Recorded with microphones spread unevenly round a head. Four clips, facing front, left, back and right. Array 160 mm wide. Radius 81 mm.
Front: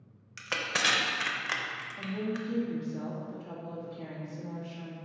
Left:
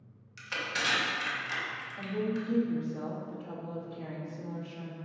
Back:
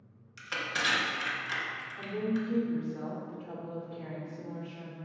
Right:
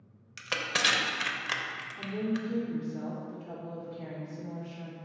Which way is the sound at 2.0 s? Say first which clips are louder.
Even, back 2 dB; 45° left.